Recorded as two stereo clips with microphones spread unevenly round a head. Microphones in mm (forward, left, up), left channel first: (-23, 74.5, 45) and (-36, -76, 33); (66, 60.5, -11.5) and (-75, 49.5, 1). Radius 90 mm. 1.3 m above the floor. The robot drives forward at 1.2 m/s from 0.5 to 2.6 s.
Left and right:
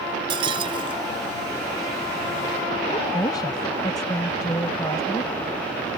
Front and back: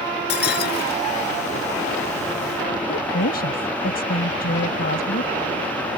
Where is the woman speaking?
20° left.